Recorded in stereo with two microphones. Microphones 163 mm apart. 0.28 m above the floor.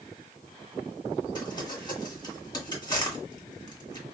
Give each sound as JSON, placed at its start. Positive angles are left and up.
{"t": 1.4, "sound": "crumpling", "side_deg": 25, "distance_m": 1.5}